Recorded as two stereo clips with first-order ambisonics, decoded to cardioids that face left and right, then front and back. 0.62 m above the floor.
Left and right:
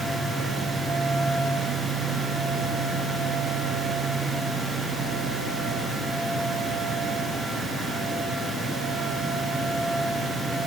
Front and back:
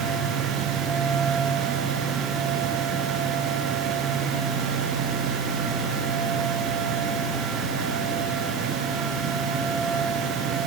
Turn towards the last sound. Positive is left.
No sound to turn to.